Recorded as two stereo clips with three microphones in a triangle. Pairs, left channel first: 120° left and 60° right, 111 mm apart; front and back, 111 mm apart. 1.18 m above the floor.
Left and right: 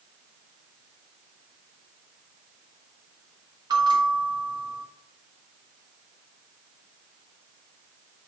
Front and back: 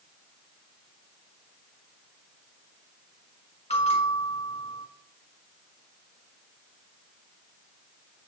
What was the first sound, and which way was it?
A bell, 10° right.